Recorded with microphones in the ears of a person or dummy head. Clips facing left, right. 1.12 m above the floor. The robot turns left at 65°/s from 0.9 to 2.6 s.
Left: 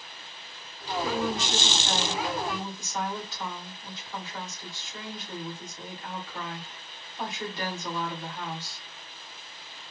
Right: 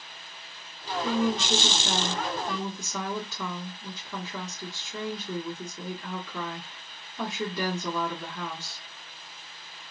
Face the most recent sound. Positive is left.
turn(degrees=-105)